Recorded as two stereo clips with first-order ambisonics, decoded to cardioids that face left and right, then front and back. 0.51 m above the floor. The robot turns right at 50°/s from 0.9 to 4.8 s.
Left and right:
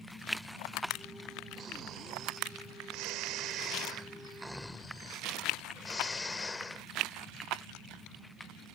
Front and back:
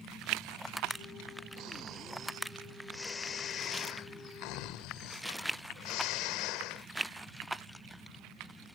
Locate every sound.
1.6 s snoring: 150° right; by 6.9 s 10° left